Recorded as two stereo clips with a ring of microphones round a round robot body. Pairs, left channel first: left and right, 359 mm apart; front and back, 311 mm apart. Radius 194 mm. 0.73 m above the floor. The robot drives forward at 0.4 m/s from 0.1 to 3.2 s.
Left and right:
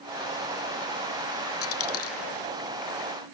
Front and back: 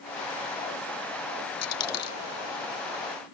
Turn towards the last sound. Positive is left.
turn(degrees=40)